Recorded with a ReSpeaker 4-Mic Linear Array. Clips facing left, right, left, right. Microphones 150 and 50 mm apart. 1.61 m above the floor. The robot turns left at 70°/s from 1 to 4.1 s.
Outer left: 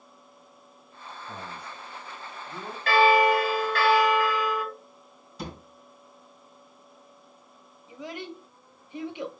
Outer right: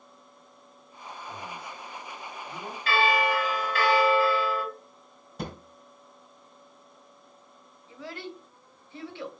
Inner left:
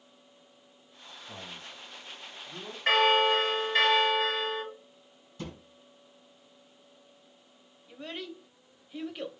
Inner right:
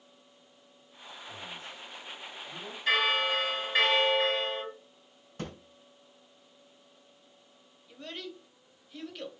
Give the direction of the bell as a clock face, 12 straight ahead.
10 o'clock.